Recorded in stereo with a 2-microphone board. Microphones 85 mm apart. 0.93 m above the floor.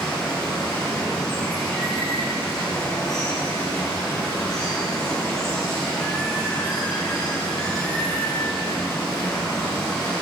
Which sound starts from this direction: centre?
Running water, at 0.0 s.